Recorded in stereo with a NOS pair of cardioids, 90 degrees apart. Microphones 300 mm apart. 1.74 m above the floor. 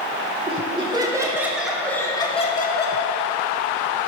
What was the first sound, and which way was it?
Laughter, 20° right.